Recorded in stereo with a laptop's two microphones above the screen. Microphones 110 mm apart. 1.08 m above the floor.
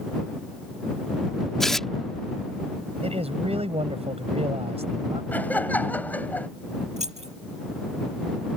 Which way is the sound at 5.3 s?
15° left (ahead or behind).